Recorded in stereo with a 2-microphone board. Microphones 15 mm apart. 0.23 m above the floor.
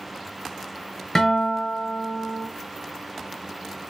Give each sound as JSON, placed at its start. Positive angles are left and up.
{"t": 1.1, "sound": "a guitar", "side_deg": 35, "distance_m": 1.2}